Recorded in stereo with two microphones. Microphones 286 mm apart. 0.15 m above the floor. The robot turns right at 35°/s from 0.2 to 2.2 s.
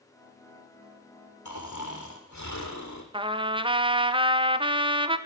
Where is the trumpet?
20° right (ahead or behind), 0.7 m.